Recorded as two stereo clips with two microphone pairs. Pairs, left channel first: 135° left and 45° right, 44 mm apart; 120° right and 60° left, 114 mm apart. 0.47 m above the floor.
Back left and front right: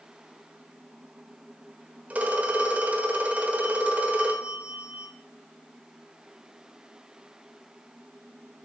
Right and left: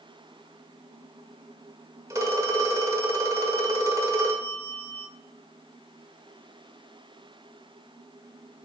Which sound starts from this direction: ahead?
A phone ringing, at 2.1 s.